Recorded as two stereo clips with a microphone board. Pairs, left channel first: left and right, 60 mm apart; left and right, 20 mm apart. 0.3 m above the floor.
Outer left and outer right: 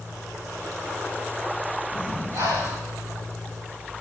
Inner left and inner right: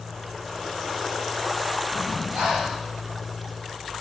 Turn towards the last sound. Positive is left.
turn(degrees=-65)  # may be behind; listen again after turning